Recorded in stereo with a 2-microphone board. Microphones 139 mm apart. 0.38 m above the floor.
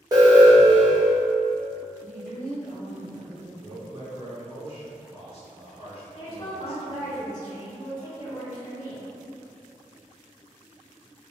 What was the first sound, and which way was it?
An alarm, 30° right (ahead or behind).